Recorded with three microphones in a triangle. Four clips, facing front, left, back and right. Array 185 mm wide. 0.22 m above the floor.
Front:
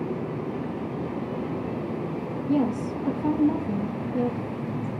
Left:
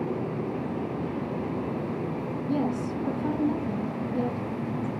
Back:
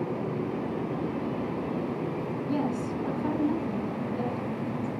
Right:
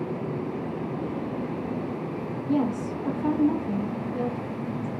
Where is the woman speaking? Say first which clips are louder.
Right 3 dB, front 6 dB; 95° right, 3 m.